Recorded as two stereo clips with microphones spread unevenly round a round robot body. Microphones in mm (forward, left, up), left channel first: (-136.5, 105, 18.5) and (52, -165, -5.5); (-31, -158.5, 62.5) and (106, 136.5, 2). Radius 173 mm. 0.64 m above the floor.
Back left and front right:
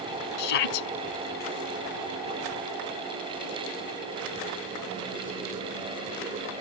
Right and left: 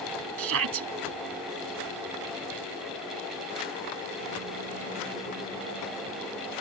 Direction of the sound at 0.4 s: 115° left.